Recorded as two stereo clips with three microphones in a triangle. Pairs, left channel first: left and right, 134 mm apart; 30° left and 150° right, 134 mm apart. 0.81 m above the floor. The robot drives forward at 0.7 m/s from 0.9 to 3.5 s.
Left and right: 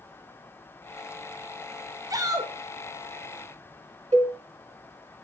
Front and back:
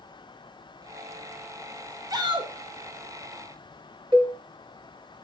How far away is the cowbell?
About 1.6 m.